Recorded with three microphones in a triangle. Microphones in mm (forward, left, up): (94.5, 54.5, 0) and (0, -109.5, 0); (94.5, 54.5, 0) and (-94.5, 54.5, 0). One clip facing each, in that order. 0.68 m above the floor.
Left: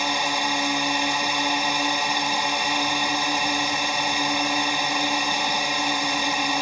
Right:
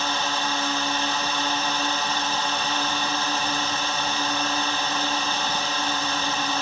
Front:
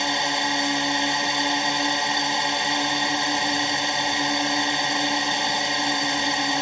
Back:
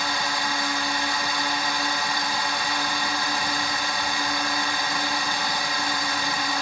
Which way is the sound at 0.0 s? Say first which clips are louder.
Left 1 dB, front 3 dB; 5° left.